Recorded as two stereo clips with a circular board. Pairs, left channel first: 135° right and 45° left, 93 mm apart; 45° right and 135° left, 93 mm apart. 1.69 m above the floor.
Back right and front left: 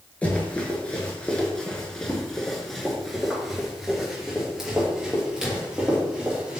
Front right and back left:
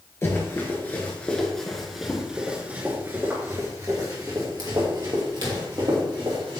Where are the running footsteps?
70° right, 1.9 m; by 6.6 s 125° left, 3.5 m.